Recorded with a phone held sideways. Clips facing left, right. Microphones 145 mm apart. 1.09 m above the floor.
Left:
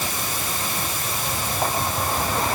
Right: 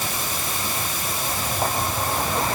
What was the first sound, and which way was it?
Only background noise.